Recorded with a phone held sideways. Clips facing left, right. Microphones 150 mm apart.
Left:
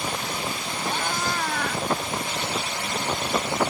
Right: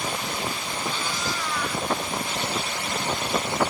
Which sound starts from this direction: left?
A cat meowing, at 0.8 s.